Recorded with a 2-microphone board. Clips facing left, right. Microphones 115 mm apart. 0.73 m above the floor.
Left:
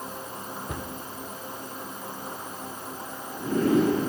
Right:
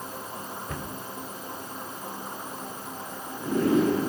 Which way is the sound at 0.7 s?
20° left (ahead or behind).